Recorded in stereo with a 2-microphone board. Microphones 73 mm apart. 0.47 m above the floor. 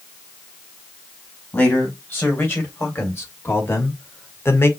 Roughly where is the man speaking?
Left.